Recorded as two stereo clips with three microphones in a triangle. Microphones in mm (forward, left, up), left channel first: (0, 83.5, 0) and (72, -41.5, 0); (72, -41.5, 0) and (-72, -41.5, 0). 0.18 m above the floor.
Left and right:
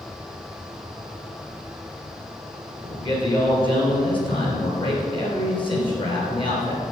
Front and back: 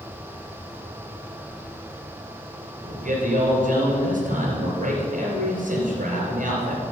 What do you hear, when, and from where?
2.8 s a man speaking: 170° left, 3 m